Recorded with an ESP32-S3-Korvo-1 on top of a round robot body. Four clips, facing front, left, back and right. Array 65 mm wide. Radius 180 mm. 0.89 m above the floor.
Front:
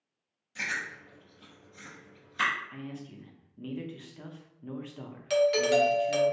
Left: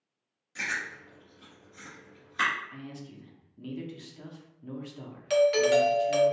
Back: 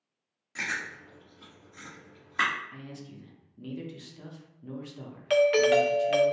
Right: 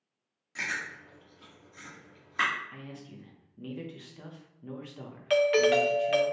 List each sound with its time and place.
0.6 s chewing: 155° right, 1.2 m
2.7 s a man speaking: 30° right, 0.9 m
5.3 s a doorbell: 145° right, 0.7 m